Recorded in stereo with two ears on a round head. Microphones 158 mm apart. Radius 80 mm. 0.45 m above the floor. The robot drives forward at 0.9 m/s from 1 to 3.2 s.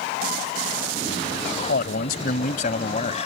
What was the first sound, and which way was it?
A man speaking, 60° left (ahead or behind).